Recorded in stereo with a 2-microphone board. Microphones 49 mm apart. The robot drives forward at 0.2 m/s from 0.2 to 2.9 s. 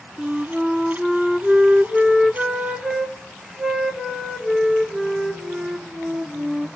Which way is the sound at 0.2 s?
20° right (ahead or behind).